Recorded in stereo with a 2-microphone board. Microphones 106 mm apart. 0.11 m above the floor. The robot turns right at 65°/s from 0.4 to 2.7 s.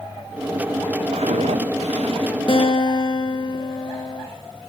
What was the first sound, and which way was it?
Footsteps, 70° right (ahead or behind).